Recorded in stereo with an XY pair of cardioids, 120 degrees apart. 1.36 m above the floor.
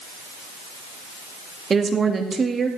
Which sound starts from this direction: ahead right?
A woman speaking, at 1.7 s.